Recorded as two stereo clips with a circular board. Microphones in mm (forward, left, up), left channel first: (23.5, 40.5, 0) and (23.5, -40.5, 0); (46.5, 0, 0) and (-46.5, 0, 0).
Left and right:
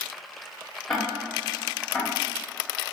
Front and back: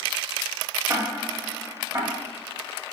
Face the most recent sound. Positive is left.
turn(degrees=175)